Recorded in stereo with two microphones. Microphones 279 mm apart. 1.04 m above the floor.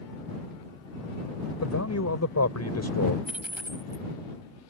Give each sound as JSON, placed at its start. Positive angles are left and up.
{"t": 1.6, "sound": "a man speaking", "side_deg": 70}
{"t": 3.2, "sound": "a dropped coin", "side_deg": -5}